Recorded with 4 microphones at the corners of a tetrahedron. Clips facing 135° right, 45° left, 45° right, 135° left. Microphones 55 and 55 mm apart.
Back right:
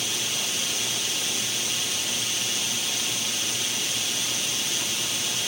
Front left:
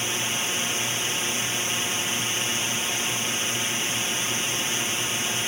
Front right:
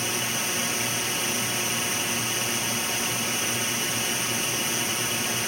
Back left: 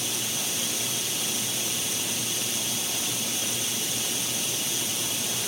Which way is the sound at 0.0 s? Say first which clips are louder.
Front left 3 dB, front right 5 dB; 10° right.